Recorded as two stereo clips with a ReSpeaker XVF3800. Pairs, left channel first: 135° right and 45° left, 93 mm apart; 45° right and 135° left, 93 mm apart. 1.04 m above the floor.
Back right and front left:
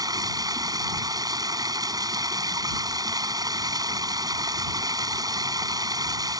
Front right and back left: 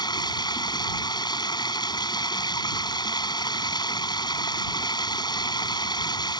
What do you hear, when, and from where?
0.0 s running water: straight ahead